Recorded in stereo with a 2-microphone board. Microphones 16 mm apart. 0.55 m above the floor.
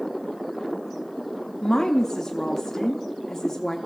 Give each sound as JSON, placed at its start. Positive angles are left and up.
{"t": 1.6, "sound": "a woman speaking", "side_deg": 30, "distance_m": 0.8}